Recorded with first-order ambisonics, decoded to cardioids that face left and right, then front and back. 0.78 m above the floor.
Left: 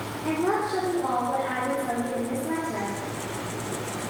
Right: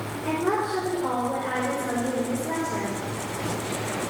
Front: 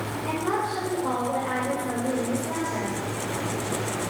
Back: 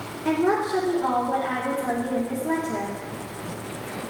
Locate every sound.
0.2 s a woman speaking: 155° left, 2.5 m